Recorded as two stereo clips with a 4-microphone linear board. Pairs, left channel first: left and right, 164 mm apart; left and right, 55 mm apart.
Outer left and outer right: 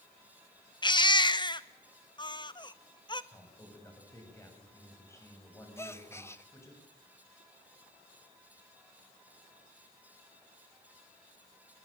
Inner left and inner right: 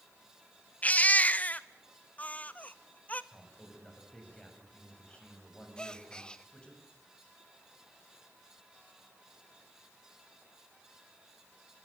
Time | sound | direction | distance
0.8 | a baby crying | 25° left (ahead or behind) | 0.8 m
3.3 | a man speaking | 15° left (ahead or behind) | 8 m
5.8 | a gasp | 15° left (ahead or behind) | 1.0 m